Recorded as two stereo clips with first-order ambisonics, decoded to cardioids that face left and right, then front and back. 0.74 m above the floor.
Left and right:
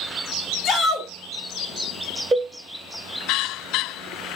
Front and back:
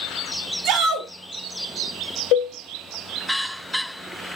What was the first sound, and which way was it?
A shout, 155° left.